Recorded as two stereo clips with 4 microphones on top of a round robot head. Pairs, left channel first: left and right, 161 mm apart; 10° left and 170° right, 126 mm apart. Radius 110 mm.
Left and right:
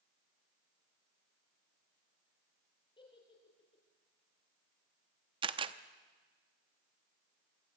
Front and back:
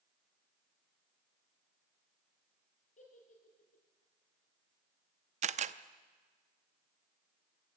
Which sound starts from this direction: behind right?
A camera shutter, at 5.4 s.